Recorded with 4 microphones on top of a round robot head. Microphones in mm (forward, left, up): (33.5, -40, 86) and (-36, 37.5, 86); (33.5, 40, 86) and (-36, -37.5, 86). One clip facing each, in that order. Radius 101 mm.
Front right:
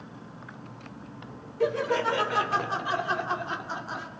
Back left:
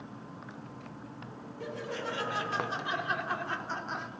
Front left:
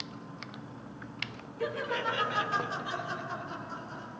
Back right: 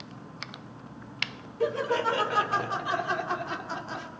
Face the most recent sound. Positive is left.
turn(degrees=-135)